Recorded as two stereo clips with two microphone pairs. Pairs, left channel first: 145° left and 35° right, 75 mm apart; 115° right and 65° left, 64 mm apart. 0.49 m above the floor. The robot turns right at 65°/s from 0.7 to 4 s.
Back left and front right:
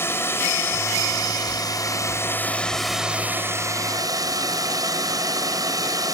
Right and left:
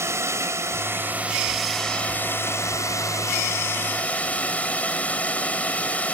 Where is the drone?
95° left; by 6.1 s 55° right.